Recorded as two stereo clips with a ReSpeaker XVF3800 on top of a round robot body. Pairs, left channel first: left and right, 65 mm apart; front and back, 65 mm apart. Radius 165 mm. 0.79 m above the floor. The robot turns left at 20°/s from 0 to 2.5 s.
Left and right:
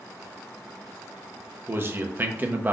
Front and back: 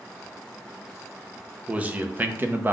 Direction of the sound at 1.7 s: 120° right.